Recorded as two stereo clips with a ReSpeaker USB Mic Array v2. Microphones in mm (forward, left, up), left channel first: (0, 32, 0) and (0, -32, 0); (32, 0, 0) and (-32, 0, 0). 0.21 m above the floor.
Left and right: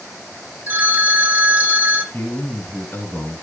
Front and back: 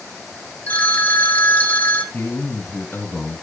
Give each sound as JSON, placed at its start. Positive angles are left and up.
{"t": 0.7, "sound": "a phone ringing", "azimuth_deg": -50, "distance_m": 1.2}
{"t": 2.1, "sound": "a man speaking", "azimuth_deg": 50, "distance_m": 2.5}